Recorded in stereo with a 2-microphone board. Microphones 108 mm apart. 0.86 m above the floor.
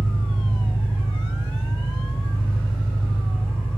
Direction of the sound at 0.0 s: 55° left (ahead or behind).